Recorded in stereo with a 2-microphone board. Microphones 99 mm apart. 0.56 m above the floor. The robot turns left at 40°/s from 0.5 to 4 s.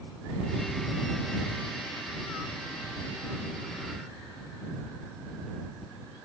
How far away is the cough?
I don't hear a cough.